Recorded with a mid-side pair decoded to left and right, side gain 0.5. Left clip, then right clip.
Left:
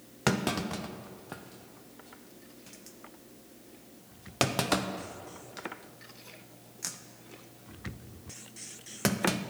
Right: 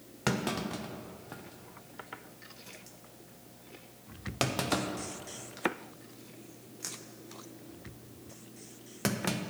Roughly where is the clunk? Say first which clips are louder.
Left 3 dB; ahead left.